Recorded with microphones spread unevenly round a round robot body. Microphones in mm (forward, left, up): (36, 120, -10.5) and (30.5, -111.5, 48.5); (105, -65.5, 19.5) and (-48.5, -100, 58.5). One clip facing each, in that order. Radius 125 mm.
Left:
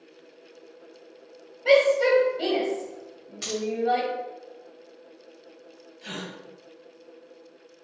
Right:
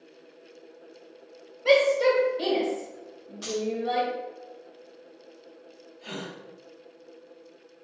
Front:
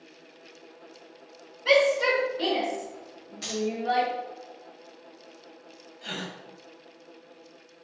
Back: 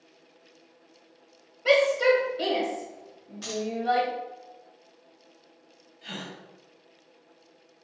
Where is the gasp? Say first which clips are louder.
Even, front 2 dB; 35° left, 1.1 m.